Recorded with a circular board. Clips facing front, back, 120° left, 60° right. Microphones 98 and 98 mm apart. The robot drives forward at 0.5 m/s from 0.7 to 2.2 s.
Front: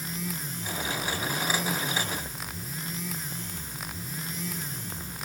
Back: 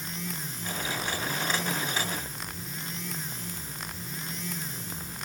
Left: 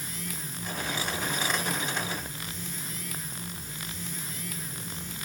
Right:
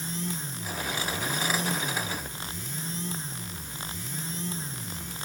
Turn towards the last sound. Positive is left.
No sound to turn to.